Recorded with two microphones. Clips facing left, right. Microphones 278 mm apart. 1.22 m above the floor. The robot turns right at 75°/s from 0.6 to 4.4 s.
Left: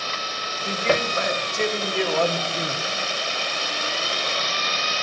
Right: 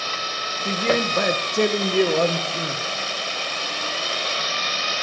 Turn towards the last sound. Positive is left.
turn(degrees=130)